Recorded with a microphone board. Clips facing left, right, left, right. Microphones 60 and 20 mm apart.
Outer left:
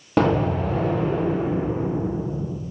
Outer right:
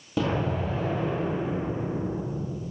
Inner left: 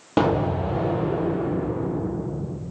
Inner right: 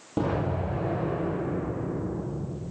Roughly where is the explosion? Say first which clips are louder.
Outer left 7 dB, inner left 7 dB; left.